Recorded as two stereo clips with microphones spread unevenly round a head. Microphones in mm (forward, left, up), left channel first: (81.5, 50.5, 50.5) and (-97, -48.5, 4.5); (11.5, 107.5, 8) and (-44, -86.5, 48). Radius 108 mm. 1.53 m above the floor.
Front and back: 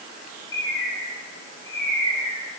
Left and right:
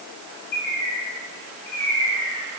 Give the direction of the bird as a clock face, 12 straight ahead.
12 o'clock.